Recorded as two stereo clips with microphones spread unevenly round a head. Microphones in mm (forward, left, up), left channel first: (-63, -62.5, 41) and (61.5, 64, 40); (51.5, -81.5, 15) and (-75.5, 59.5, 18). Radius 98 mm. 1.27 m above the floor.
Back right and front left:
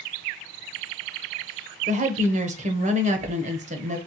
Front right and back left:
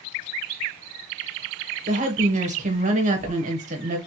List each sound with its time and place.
1.9 s a woman speaking: 85° left, 1.0 m